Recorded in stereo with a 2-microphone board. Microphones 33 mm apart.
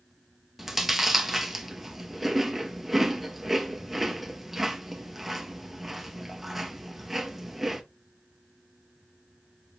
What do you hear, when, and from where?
0.6 s chewing: 5° right (ahead or behind), 0.6 m